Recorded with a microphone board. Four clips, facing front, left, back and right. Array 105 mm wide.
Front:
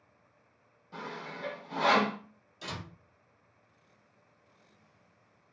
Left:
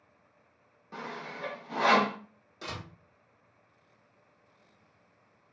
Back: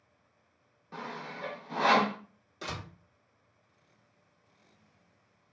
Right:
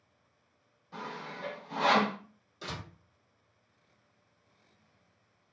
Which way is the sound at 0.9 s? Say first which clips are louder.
Left 1 dB, back 1 dB; 130° left.